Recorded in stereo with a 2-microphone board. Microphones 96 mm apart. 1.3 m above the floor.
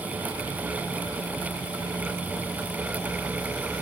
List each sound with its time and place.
Only background noise.